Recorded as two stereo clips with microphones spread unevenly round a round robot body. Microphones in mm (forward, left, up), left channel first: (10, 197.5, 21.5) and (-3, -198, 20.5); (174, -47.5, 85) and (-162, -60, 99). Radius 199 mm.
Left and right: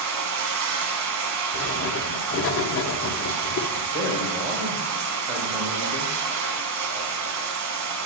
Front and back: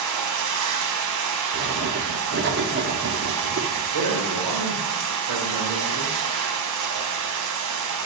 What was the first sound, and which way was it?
Running water, 145° right.